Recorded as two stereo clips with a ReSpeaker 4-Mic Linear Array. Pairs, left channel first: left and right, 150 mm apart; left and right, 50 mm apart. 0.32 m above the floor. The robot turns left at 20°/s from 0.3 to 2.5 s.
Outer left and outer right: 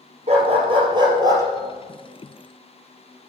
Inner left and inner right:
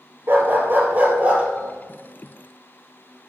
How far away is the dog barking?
About 1.6 m.